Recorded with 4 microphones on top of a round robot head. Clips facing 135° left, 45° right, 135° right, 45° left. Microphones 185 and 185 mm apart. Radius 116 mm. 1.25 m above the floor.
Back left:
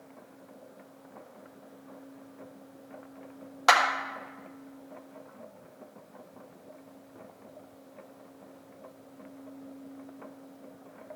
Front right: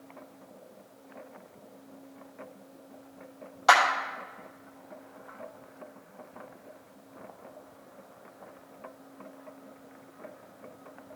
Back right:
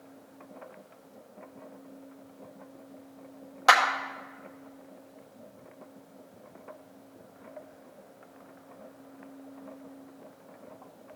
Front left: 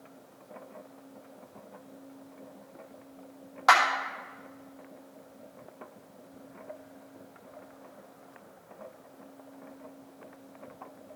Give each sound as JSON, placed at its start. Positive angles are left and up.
{"t": 3.7, "sound": "a clap", "azimuth_deg": 165, "distance_m": 1.6}